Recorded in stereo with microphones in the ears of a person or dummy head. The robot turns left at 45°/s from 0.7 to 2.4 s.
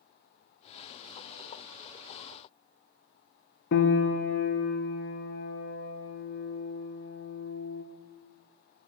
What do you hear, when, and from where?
3.7 s a piano: 60° left (ahead or behind), 0.6 m